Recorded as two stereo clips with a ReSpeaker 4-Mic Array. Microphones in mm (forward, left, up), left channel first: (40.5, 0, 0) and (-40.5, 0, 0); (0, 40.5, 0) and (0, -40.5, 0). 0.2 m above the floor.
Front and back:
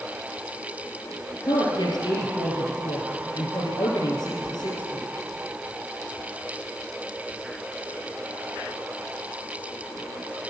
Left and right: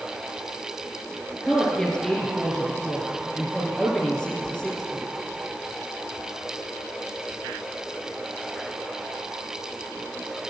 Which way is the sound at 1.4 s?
15° left.